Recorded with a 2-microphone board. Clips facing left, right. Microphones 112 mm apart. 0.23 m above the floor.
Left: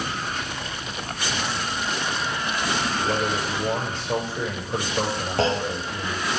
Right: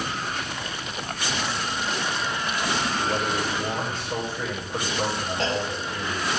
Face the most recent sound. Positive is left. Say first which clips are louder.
# left 6 dB
turn(degrees=90)